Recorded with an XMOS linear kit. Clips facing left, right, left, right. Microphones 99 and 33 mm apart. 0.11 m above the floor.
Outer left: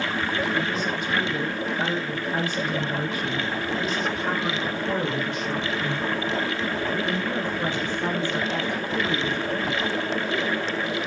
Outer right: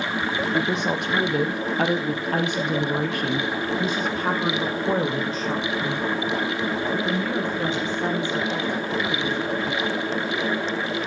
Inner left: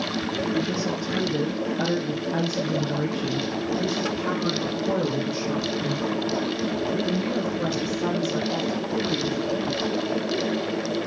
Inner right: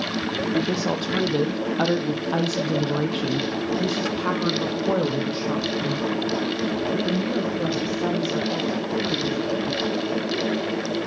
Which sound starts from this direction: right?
A woman speaking, at 0.5 s.